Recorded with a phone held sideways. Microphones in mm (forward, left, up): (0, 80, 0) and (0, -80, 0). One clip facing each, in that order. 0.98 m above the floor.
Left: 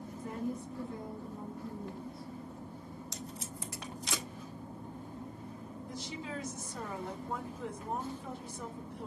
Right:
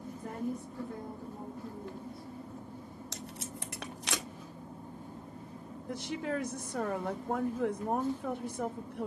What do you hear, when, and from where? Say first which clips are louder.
0.2 s a woman speaking: even; 60° right (ahead or behind), 3 m
3.1 s tape being pulled: right 3 dB; 75° right (ahead or behind), 1.2 m
5.9 s a woman speaking: right 8 dB; 65° right (ahead or behind), 1.3 m